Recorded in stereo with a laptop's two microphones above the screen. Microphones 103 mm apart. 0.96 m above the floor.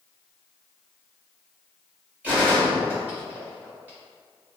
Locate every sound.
2.2 s a gunshot: 15° right (ahead or behind), 2.0 m